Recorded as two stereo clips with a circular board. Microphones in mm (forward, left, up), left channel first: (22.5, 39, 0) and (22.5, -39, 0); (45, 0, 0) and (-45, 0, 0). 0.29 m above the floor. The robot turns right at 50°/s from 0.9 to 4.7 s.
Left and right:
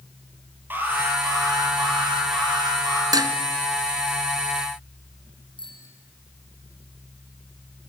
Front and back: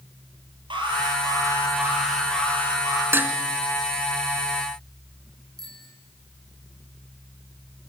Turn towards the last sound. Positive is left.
turn(degrees=85)